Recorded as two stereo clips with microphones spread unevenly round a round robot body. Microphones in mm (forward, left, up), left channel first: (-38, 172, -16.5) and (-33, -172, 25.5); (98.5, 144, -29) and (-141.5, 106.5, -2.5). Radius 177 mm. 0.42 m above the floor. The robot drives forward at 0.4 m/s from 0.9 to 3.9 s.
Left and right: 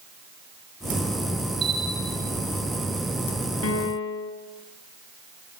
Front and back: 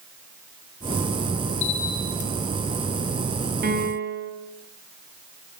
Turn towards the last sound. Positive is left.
turn(degrees=140)